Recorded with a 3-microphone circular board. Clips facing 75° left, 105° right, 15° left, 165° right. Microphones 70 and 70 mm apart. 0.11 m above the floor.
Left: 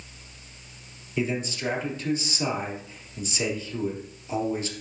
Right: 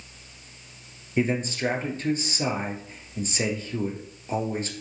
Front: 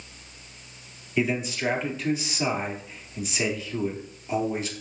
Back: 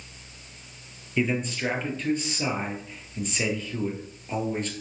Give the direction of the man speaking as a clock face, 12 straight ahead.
2 o'clock.